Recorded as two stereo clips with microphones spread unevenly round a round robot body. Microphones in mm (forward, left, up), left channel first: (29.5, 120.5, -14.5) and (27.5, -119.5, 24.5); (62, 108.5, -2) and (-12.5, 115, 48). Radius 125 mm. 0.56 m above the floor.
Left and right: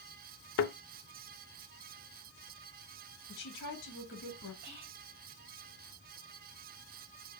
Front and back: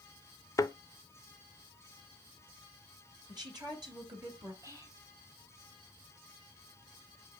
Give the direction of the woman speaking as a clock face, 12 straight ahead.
8 o'clock.